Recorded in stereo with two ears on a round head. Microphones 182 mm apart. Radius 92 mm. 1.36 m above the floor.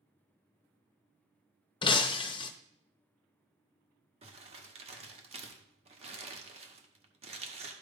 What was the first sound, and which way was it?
Breaking glass, 25° left (ahead or behind).